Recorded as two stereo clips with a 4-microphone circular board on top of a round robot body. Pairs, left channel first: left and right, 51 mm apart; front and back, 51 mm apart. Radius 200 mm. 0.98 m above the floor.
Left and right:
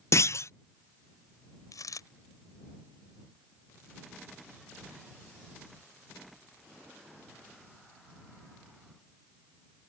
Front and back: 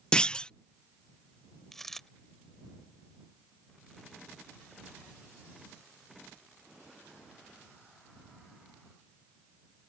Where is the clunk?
70° left.